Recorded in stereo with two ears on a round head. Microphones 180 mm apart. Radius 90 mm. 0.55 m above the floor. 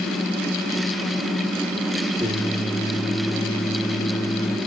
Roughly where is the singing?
Centre.